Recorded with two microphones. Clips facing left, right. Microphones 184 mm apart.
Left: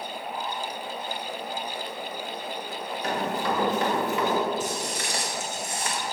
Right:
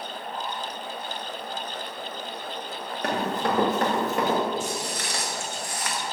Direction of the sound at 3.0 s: 60° right (ahead or behind).